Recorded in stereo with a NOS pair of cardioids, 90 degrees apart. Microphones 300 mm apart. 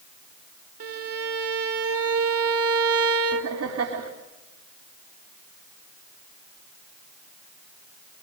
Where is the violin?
50° right, 2.5 m.